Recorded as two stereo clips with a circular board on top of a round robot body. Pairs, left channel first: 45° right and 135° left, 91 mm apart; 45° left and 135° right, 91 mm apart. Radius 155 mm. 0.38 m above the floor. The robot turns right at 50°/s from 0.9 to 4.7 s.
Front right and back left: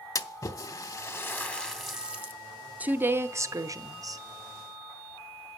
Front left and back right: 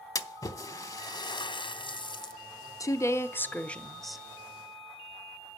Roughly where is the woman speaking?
Left.